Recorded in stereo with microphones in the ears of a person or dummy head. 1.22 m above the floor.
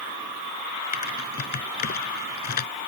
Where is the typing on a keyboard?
45° left (ahead or behind).